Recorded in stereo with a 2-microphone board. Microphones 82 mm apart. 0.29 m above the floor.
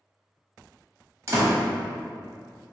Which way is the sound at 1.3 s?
35° right (ahead or behind).